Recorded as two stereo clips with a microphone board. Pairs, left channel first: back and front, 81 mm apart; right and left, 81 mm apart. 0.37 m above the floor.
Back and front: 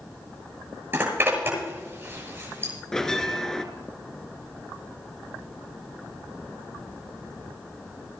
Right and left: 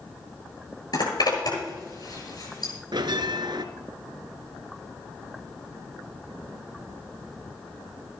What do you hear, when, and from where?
0.9 s a zipper: 60° right, 8 m
2.9 s a bell: 95° left, 0.9 m